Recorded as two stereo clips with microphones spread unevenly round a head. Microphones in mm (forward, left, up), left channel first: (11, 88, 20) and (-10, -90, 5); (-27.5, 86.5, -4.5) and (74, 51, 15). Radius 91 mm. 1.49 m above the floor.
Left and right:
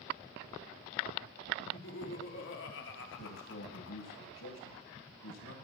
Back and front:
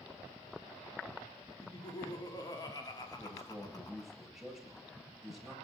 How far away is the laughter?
About 5 m.